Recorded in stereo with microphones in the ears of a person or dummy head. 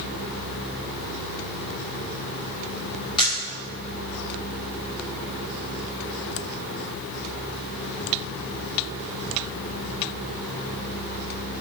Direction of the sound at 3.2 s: 35° left (ahead or behind).